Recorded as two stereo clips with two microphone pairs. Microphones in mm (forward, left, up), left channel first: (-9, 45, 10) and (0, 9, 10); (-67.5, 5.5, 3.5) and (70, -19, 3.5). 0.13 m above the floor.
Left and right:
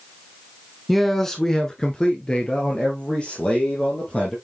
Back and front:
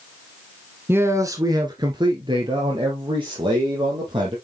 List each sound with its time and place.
0.9 s a man speaking: 25° left, 1.1 m; by 4.3 s 40° left, 3.5 m